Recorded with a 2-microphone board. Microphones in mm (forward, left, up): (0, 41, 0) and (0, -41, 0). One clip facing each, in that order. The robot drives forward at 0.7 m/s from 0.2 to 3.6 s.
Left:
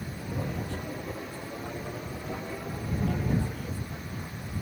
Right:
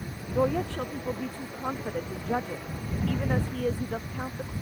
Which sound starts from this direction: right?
A woman speaking, at 0.3 s.